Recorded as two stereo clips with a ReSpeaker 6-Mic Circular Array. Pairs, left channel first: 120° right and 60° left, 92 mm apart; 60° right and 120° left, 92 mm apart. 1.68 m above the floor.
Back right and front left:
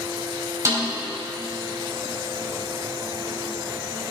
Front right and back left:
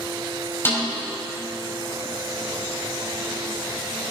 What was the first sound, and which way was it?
A snare drum, 5° left.